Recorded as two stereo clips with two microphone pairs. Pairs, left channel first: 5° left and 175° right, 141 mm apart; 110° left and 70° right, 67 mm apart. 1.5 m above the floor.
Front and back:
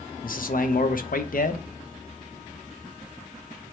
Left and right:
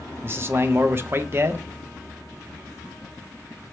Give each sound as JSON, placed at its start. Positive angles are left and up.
{"t": 0.2, "sound": "a man speaking", "azimuth_deg": -10, "distance_m": 0.7}